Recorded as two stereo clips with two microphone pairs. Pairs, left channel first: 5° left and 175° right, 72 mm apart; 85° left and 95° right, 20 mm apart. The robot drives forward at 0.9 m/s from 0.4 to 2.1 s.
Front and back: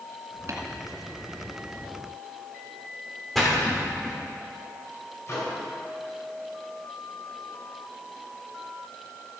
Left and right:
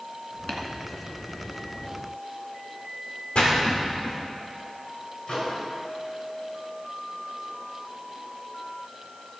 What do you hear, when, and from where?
0.5 s tapping: 145° left, 1.7 m
3.4 s a splash: 90° left, 3 m
5.3 s a microwave: 55° left, 3 m